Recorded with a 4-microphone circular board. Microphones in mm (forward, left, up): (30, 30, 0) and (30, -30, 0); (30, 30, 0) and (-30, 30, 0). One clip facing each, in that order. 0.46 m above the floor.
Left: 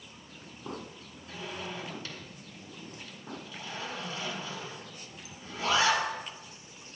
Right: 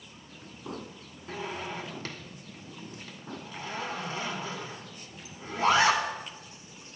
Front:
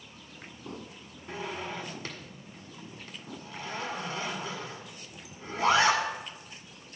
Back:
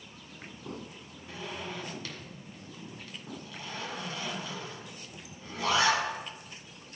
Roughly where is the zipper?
Ahead right.